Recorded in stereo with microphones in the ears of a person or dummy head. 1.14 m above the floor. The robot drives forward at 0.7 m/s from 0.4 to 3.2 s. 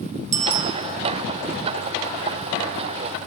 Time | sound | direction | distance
0.3 | a bicycle bell | 40° right (ahead or behind) | 2 m